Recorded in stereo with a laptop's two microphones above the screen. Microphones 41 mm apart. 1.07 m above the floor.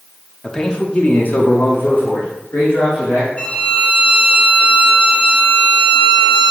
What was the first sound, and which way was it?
A man speaking, 15° left (ahead or behind).